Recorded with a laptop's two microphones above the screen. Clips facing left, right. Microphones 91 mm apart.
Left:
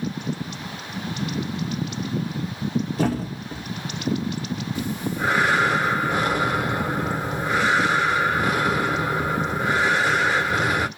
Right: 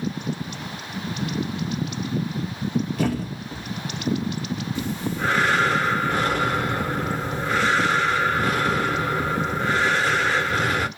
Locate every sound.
3.0 s a thud: 30° left (ahead or behind), 0.6 m
4.8 s breathing: 15° left (ahead or behind), 0.5 m